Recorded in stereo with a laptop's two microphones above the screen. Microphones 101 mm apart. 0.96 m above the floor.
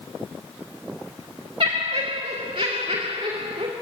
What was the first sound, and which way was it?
Laughter, 65° right (ahead or behind).